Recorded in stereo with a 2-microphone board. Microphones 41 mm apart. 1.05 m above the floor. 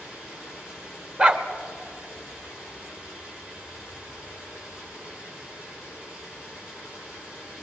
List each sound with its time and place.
0.0 s running water: 15° right (ahead or behind), 9 m
1.2 s a dog barking: 30° right (ahead or behind), 1.1 m